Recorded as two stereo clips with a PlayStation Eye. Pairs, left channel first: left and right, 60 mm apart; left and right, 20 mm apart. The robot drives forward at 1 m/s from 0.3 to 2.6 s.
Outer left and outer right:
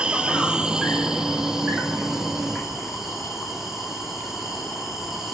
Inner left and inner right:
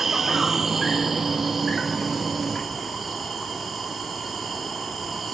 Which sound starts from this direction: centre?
An insect, at 0.0 s.